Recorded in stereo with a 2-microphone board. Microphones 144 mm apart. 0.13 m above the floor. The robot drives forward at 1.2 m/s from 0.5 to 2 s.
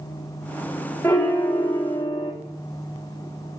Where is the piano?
15° left (ahead or behind), 2.5 m; by 2.3 s 25° left (ahead or behind), 1.3 m.